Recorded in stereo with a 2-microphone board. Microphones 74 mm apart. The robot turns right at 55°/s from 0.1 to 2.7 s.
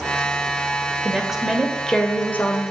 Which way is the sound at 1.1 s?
25° right.